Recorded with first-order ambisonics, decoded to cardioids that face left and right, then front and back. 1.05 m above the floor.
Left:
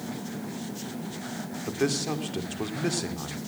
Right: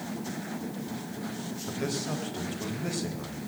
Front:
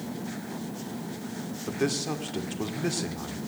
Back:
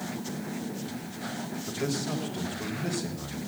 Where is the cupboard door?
I don't hear a cupboard door.